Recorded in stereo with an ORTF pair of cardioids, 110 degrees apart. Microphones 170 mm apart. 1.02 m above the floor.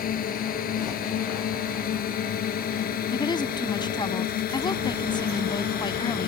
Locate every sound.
0.0 s a drone: 60° left; by 6.3 s 65° left
3.1 s a woman speaking: 25° left